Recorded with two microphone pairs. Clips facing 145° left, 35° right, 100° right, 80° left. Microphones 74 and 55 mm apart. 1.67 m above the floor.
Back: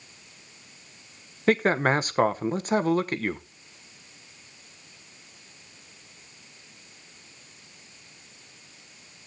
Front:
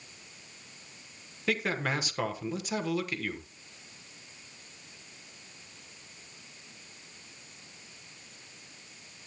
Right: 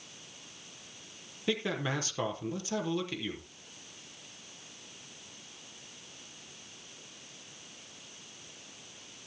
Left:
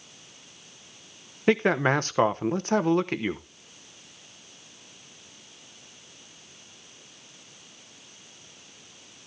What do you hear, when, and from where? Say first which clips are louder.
1.5 s a man speaking: back 9 dB, left 11 dB; 110° left, 1.0 m